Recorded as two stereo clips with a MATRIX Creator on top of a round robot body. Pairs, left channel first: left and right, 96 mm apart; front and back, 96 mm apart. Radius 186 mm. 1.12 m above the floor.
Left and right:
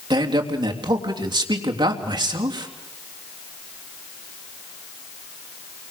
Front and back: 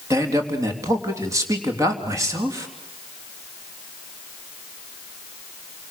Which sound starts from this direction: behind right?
A man speaking, at 0.1 s.